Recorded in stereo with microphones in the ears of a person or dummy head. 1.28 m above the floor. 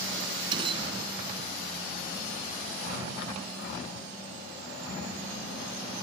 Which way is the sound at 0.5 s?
30° right (ahead or behind).